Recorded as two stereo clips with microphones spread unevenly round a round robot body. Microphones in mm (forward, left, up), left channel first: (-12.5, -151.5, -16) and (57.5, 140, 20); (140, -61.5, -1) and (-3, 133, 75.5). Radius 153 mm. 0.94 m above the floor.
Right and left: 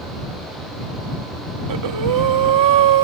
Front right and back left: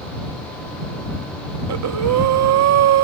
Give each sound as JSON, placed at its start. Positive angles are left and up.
{"t": 1.7, "sound": "breathing", "azimuth_deg": 110}